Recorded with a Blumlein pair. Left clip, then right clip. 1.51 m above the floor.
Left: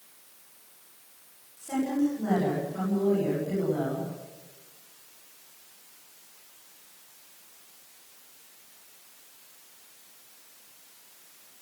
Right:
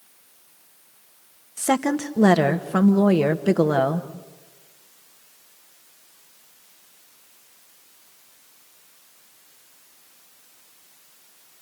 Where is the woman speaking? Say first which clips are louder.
Right 7 dB; 50° right, 2 m.